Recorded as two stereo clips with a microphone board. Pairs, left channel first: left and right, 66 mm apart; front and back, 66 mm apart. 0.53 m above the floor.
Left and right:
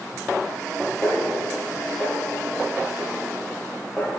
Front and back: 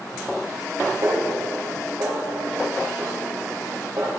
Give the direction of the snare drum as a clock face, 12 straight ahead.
7 o'clock.